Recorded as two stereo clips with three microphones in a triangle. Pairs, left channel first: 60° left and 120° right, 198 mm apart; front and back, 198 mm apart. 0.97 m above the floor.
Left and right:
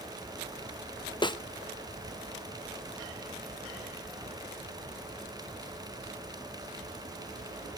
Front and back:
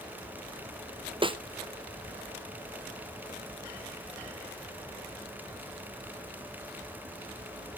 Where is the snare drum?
120° left, 0.6 m.